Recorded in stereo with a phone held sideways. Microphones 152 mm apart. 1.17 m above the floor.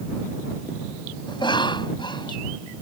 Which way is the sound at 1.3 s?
30° left (ahead or behind).